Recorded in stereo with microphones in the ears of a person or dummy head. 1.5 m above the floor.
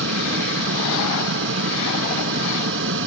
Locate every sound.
0.0 s a fan: 70° right (ahead or behind)